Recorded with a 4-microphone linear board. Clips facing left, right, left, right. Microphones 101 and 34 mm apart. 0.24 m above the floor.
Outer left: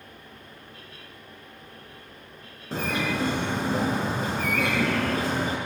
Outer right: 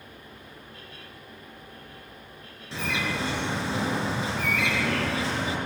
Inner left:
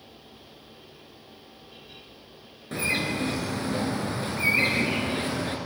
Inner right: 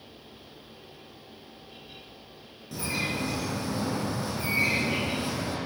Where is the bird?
45° left (ahead or behind), 5 m.